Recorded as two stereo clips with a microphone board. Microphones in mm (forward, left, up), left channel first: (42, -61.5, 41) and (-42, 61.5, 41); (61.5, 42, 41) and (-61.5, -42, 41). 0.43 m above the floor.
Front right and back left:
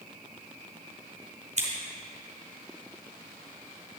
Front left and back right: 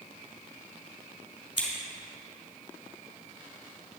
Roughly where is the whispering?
No whispering in this recording.